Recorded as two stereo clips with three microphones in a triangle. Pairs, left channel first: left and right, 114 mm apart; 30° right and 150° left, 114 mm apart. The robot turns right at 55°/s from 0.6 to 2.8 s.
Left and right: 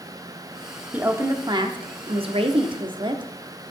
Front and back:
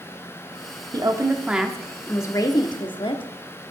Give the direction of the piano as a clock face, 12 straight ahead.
I don't hear a piano.